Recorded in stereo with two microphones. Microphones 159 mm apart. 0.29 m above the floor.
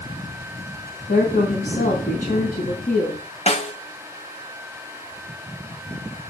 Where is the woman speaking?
55° left (ahead or behind), 2.5 m.